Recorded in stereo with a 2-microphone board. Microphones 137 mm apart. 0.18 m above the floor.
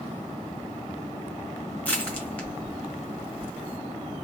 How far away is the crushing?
About 1.9 m.